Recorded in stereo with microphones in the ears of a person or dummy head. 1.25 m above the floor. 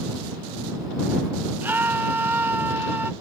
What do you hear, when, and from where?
1.6 s a scream: centre (ahead or behind)